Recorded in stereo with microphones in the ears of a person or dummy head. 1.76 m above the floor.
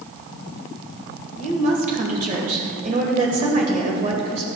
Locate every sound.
1.4 s a woman speaking: 40° right (ahead or behind), 1.8 m